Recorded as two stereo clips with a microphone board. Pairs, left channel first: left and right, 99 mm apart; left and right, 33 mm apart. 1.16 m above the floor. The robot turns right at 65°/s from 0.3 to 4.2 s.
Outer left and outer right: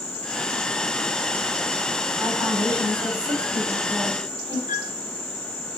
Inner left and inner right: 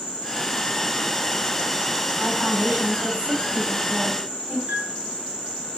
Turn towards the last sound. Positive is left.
turn(degrees=-45)  # may be behind; listen again after turning